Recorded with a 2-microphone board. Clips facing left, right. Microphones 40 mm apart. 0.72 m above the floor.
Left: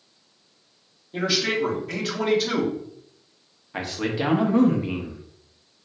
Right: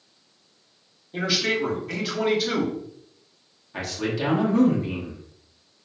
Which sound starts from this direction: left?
A man speaking, at 3.7 s.